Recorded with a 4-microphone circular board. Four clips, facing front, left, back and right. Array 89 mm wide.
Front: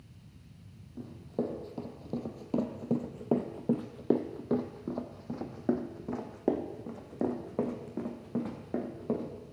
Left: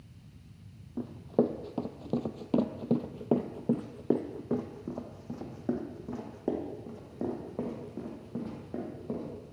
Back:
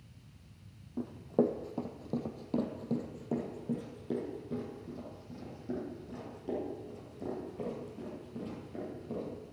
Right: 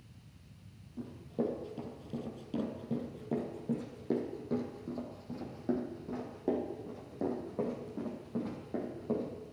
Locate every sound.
1.0 s running footsteps: 120° left, 1.5 m; by 9.3 s straight ahead, 4 m